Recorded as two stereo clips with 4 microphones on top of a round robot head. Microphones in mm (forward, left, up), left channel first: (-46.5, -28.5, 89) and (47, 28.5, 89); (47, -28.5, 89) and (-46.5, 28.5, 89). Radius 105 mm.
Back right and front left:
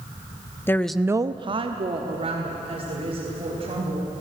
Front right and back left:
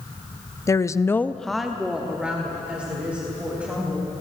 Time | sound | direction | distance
0.7 | a woman speaking | 85° right | 0.9 m